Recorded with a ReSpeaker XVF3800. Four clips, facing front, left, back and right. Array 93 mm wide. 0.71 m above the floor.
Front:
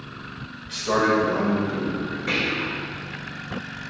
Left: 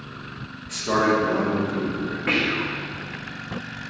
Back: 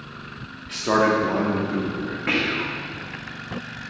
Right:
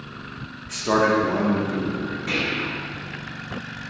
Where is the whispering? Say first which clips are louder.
Left 4 dB, back 2 dB; 140° left, 1.0 m.